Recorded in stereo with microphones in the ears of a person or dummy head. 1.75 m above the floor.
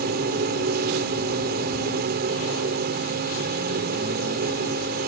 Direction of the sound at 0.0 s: 50° right (ahead or behind).